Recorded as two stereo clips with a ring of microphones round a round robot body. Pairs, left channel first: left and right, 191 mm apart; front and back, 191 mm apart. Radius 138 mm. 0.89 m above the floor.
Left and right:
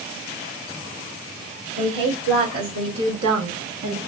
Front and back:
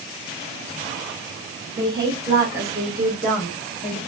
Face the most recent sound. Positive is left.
turn(degrees=-70)